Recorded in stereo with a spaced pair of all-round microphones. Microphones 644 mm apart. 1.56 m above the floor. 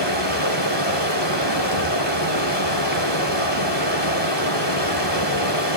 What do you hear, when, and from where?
0.0 s running water: 40° left (ahead or behind), 2.5 m